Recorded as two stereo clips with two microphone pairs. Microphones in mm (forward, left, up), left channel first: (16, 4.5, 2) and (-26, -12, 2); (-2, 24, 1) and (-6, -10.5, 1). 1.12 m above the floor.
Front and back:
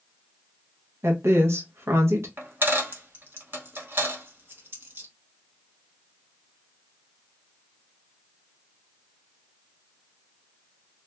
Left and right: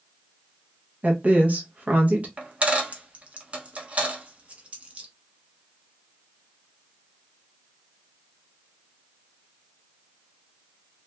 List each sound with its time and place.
1.0 s a woman speaking: 145° right, 0.7 m
2.4 s a dropped coin: 145° right, 0.7 m